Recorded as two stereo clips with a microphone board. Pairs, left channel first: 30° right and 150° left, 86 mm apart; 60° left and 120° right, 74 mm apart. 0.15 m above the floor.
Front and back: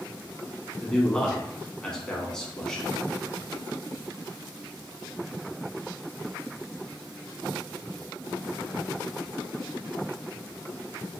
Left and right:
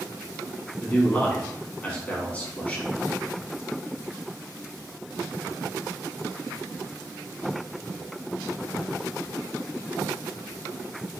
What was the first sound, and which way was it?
A man speaking, 40° left.